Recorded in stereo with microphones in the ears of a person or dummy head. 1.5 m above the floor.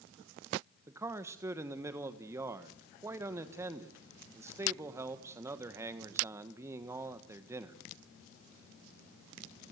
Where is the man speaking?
15° right (ahead or behind), 1.4 m.